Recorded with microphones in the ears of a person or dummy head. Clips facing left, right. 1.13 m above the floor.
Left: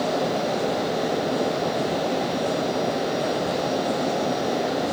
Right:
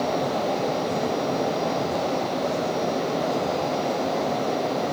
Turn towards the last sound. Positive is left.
No sound to turn to.